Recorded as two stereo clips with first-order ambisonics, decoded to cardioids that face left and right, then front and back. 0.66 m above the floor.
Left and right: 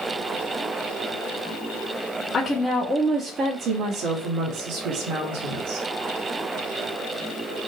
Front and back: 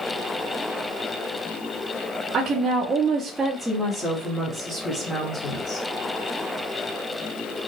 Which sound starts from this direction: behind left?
A woman speaking, at 2.3 s.